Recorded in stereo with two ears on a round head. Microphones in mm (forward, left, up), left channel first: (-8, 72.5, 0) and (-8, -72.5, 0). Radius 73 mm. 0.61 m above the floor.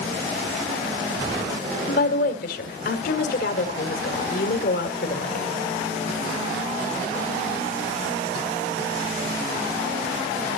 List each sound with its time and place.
1.9 s a woman speaking: 65° left (ahead or behind), 1.9 m